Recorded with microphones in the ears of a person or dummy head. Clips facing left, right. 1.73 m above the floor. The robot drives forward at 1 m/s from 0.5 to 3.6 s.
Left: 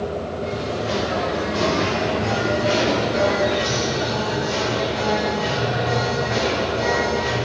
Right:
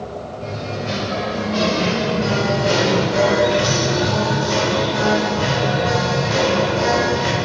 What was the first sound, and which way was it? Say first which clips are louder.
Singing: even; 35° right (ahead or behind).